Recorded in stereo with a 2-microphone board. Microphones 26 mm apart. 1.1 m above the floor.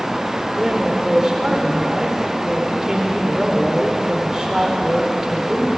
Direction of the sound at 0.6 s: 15° right (ahead or behind).